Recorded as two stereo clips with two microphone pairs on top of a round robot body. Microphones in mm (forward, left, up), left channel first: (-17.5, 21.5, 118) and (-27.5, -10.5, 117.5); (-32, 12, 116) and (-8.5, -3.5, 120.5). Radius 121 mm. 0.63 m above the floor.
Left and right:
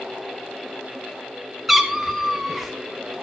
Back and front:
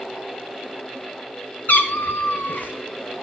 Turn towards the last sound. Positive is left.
turn(degrees=165)